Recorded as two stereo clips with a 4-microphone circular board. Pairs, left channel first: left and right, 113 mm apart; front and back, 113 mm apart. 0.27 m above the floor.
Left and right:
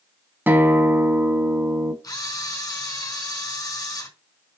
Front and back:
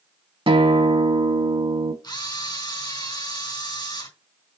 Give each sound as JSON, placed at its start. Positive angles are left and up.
{"t": 0.5, "sound": "a guitar", "azimuth_deg": -160, "distance_m": 0.8}
{"t": 2.0, "sound": "a camera shutter", "azimuth_deg": 40, "distance_m": 3.5}